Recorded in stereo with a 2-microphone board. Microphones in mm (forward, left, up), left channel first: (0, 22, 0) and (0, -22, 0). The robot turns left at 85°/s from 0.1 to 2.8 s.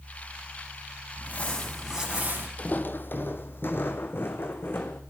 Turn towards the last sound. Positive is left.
turn(degrees=55)  # may be behind; listen again after turning